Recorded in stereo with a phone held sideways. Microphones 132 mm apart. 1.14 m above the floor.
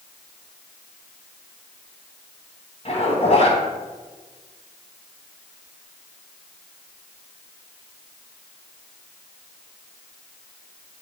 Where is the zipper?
55° left (ahead or behind), 2.5 m.